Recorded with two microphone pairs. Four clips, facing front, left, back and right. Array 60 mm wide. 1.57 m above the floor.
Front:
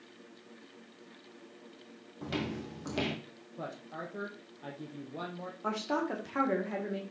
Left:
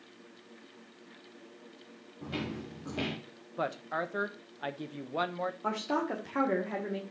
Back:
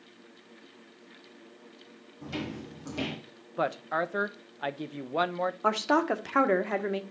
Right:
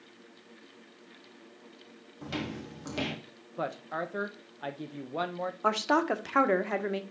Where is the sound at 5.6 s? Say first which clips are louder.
Right 7 dB, back 7 dB; 135° right, 1.2 m.